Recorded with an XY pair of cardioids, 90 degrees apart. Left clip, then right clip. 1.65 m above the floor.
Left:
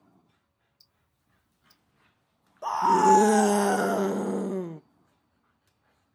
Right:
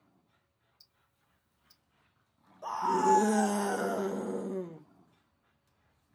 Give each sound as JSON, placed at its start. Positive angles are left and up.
{"t": 0.8, "sound": "ticking", "azimuth_deg": 5, "distance_m": 1.1}
{"t": 2.6, "sound": "a scream", "azimuth_deg": 55, "distance_m": 0.6}